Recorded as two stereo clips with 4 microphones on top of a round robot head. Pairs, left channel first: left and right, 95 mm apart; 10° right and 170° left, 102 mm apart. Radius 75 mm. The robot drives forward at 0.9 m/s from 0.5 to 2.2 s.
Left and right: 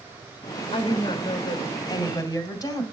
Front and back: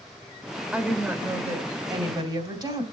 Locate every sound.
0.7 s a woman speaking: 90° left, 1.8 m; by 2.8 s 135° left, 2.5 m